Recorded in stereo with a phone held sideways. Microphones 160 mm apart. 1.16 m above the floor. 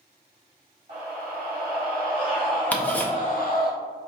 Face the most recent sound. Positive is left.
turn(degrees=10)  # may be behind; listen again after turning